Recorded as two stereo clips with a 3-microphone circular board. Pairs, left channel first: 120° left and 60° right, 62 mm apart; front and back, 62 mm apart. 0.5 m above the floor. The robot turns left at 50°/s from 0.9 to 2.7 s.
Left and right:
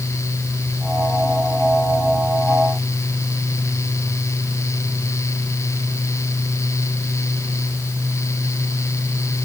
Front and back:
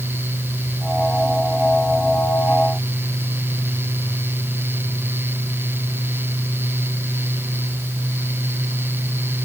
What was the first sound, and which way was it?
Only background noise.